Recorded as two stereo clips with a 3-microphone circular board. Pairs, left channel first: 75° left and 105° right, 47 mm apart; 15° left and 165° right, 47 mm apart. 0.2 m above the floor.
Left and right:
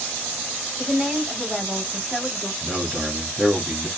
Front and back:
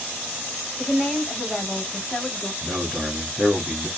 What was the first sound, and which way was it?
A woman speaking, 80° right.